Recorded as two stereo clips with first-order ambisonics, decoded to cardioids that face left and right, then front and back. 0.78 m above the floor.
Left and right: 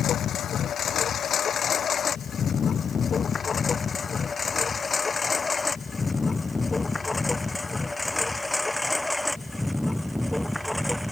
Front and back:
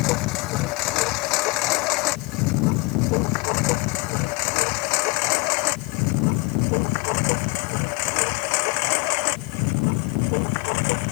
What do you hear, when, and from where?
0.0 s a lawn mower: 35° left; by 11.1 s straight ahead